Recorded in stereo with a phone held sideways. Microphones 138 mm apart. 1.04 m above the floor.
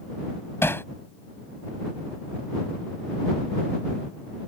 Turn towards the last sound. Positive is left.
turn(degrees=20)  # may be behind; listen again after turning